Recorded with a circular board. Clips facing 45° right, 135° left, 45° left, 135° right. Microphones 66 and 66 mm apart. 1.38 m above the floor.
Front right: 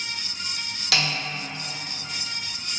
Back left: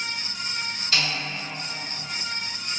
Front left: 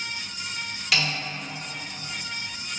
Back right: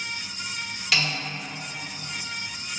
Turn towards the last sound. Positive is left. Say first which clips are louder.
# front right 2 dB, even
turn(degrees=-45)